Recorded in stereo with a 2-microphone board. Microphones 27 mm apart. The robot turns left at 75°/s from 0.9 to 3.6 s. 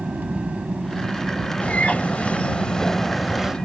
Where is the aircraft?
110° right; by 3.6 s 50° left.